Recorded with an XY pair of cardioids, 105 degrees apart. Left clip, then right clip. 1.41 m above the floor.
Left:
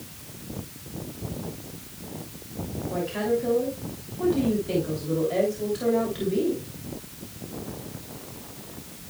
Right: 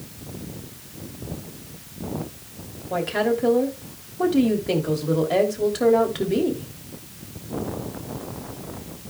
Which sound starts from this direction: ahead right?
A woman speaking, at 2.9 s.